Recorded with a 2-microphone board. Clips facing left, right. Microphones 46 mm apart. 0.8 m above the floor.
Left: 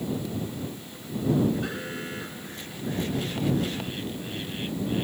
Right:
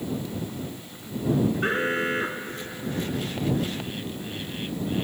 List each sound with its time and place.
1.6 s an alarm: 40° right (ahead or behind)